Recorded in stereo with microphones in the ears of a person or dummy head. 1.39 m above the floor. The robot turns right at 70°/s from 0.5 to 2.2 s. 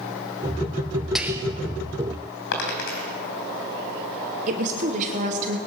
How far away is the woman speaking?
About 1.0 m.